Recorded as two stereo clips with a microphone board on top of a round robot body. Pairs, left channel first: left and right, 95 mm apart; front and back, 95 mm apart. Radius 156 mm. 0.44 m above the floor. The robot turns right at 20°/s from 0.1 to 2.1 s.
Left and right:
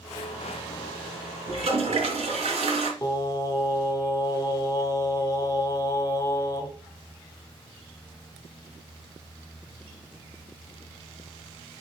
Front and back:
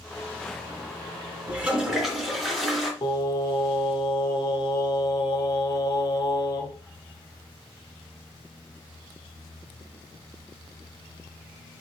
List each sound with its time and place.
1.5 s a toilet flushing: 105° right, 2.5 m; by 2.9 s 90° right, 2.5 m
3.0 s singing: 35° left, 2.0 m